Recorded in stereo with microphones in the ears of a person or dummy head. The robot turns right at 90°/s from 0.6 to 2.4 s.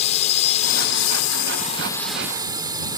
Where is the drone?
35° left; by 3.0 s 165° right.